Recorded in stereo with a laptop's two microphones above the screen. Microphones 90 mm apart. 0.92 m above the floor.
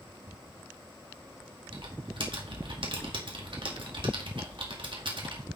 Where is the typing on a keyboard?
65° right (ahead or behind), 2 m.